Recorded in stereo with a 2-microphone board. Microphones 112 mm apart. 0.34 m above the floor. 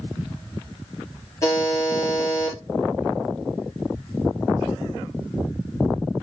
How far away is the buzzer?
About 4.5 m.